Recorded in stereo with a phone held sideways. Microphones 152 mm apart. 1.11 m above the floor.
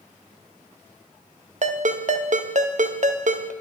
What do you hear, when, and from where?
1.6 s a ringtone: 60° right (ahead or behind), 0.5 m